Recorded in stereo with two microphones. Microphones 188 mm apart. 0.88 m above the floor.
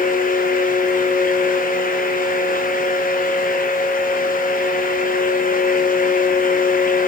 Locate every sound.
Only background noise.